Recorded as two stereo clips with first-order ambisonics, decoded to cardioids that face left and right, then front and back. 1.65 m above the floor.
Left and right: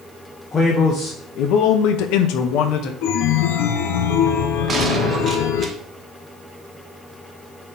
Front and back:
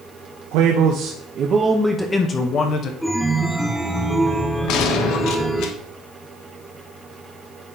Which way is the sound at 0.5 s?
160° left.